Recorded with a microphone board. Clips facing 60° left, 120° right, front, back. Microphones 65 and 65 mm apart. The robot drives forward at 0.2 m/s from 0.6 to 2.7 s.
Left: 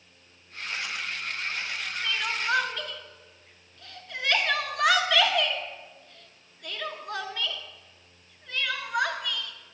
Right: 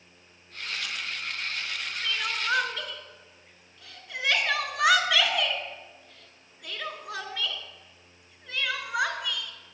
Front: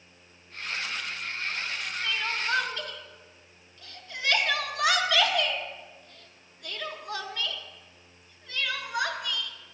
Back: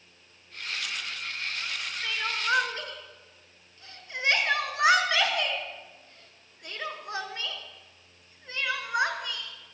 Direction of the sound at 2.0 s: 155° left.